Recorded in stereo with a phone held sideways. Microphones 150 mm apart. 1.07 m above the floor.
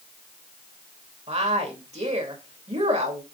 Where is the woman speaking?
45° right (ahead or behind), 2 m.